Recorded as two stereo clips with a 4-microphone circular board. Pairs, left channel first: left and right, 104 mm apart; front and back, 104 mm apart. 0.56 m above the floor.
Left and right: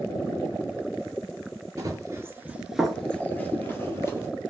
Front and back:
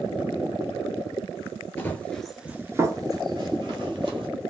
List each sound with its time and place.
1.8 s running footsteps: 55° right, 0.7 m; by 4.3 s 155° left, 1.2 m